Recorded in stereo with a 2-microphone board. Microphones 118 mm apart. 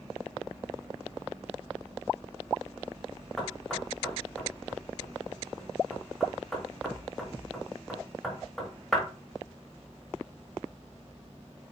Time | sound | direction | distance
3.4 | knocking | 5° left (ahead or behind) | 1.5 m